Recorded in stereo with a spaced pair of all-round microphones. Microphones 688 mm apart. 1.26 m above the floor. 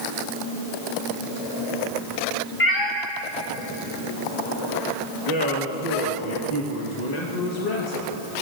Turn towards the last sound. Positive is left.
turn(degrees=70)  # may be behind; listen again after turning